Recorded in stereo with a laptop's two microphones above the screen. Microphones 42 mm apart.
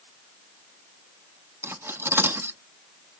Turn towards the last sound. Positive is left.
turn(degrees=-70)  # may be behind; listen again after turning